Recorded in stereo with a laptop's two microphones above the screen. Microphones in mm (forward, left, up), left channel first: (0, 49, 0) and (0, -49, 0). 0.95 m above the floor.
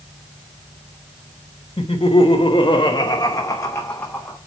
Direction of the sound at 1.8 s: 70° left (ahead or behind).